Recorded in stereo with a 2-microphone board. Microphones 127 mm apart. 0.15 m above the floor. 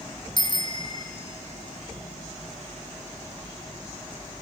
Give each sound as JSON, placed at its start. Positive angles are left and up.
{"t": 0.4, "sound": "a bicycle bell", "side_deg": 40, "distance_m": 2.0}